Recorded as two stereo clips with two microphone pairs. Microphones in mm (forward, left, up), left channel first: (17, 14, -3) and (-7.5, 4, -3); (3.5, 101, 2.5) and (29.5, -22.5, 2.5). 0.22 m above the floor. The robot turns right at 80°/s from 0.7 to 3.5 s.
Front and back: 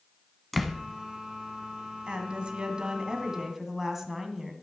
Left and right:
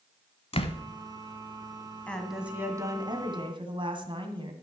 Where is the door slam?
115° left, 1.0 m; by 0.8 s 125° left, 1.0 m.